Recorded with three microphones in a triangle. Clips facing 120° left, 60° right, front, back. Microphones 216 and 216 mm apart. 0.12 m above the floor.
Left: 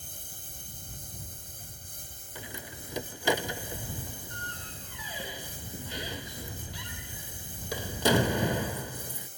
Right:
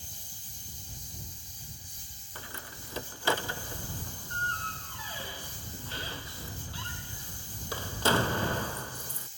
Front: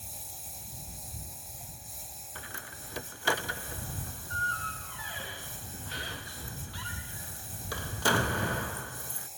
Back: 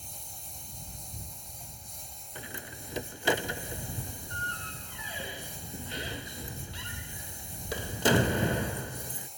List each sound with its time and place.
0.0 s a lawn mower: 90° left
2.4 s a door slam: 170° left